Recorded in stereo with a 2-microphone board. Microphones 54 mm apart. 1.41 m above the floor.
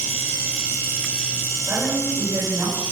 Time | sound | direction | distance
1.6 | a woman speaking | 65° right (ahead or behind) | 7.5 m